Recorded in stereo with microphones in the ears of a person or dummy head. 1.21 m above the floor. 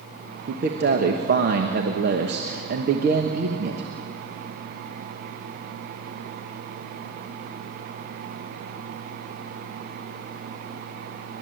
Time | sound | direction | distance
0.5 | a man speaking | 45° right (ahead or behind) | 1.2 m